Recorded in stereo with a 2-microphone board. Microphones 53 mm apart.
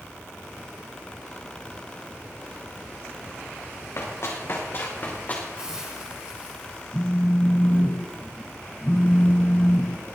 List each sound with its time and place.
4.0 s running footsteps: 60° left (ahead or behind), 3.5 m; by 5.5 s 30° left (ahead or behind), 3.5 m
5.6 s a hiss: 20° right (ahead or behind), 4.5 m
6.9 s a phone buzzing: 5° left (ahead or behind), 1.5 m